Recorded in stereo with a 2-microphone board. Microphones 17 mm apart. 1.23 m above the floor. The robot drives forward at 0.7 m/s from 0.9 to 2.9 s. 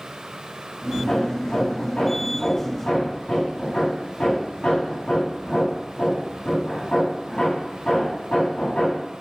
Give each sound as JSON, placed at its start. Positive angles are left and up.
{"t": 1.1, "sound": "hammering", "side_deg": 85, "distance_m": 8.5}